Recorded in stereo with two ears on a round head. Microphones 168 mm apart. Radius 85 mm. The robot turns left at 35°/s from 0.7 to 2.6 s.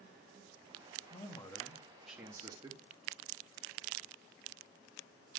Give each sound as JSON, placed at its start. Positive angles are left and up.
{"t": 1.1, "sound": "a man speaking", "azimuth_deg": 30, "distance_m": 1.2}